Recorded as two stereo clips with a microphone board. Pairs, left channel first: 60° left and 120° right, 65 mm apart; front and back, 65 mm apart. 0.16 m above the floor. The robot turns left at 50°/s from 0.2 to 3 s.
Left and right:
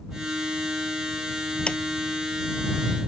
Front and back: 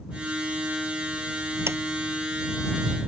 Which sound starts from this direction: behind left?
A sliding door, at 1.7 s.